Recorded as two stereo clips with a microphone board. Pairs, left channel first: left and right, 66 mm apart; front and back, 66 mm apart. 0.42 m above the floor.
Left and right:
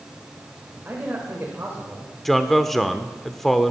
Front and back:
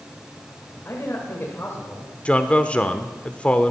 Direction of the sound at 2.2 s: 5° left.